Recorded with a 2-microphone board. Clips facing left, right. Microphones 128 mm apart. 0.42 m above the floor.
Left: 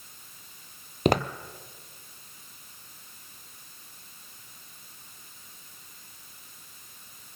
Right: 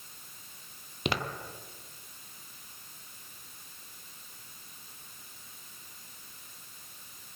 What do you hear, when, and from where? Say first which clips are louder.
1.1 s footsteps: left 9 dB; 45° left (ahead or behind), 0.7 m